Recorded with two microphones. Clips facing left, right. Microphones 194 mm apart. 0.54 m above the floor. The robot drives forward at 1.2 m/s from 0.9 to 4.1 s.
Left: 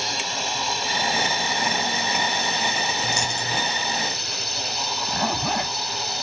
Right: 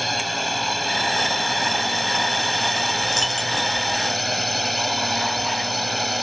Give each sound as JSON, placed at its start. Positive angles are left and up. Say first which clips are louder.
{"t": 0.0, "sound": "a drone", "louder": "right 3 dB", "side_deg": -60}
{"t": 3.0, "sound": "a dropped coin", "louder": "right 1 dB", "side_deg": 10}
{"t": 5.1, "sound": "a zipper", "louder": "even", "side_deg": 70}